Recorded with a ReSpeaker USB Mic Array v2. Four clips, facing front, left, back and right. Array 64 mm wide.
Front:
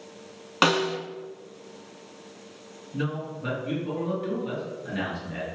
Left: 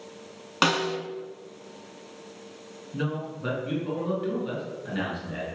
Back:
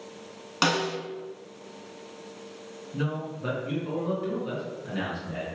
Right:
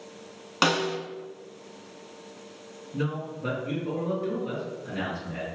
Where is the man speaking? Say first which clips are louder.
Even, front 1 dB; 90° left, 1.8 m.